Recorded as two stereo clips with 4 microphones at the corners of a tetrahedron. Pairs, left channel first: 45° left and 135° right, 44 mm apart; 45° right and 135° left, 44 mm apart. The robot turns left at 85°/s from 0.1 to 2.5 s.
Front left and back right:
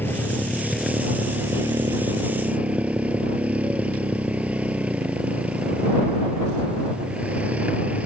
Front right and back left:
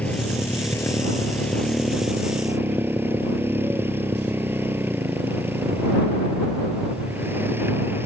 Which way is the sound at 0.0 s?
10° left.